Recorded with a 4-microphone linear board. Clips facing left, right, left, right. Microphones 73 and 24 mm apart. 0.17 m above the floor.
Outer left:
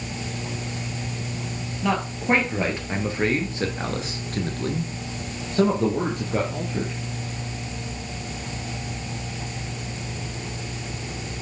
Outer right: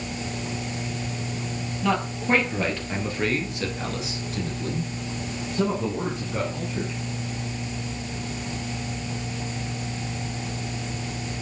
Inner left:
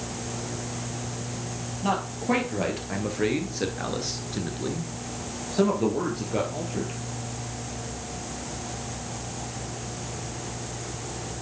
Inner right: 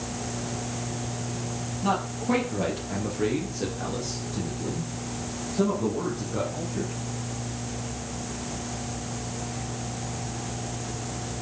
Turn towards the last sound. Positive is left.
turn(degrees=55)  # may be behind; listen again after turning